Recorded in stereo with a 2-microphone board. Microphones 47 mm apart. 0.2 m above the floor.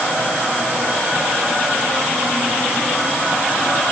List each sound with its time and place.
Only background noise.